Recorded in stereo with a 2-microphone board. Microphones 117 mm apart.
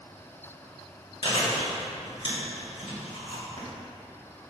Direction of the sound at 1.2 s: 50° left (ahead or behind).